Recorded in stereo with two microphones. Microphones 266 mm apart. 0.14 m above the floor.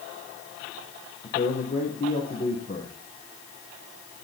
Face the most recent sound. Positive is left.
turn(degrees=35)  # may be behind; listen again after turning